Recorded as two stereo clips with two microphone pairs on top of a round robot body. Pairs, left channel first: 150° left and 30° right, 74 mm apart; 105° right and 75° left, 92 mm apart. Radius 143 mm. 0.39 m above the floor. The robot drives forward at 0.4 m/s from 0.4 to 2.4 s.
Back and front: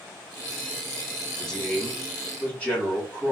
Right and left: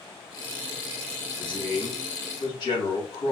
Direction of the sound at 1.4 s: 125° right.